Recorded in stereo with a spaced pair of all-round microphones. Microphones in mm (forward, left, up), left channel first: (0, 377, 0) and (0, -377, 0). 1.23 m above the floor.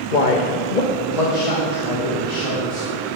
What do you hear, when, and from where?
0.1 s a man speaking: 85° left, 1.4 m; by 3.0 s 30° left (ahead or behind), 4 m